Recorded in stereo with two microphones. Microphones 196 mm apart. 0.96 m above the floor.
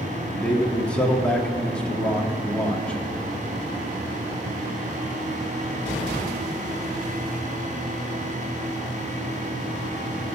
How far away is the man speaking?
About 2.0 m.